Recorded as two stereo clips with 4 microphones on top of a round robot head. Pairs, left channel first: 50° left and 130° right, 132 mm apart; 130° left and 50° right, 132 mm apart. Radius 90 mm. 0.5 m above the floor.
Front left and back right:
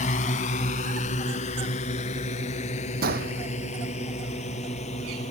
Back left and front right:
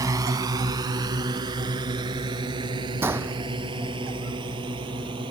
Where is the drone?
15° left; by 5.3 s 5° left.